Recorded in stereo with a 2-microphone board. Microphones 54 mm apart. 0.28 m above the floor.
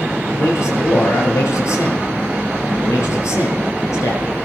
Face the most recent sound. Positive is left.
turn(degrees=70)  # may be behind; listen again after turning